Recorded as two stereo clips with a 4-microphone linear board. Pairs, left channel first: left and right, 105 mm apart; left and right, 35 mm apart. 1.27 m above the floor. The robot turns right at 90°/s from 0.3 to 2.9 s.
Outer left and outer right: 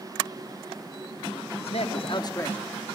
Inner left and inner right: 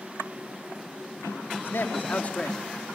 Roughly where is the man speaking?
Left.